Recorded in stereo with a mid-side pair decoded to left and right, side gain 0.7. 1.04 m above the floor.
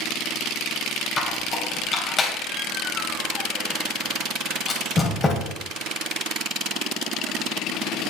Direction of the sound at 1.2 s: 20° left.